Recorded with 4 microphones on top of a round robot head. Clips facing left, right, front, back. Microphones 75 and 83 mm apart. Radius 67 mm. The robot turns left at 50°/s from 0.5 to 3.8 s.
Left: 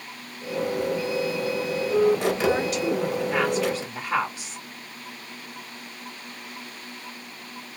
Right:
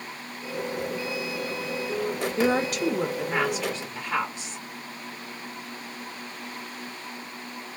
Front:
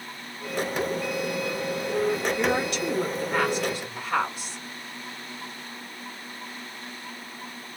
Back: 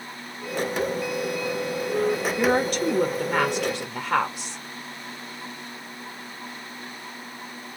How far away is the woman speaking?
About 1.1 m.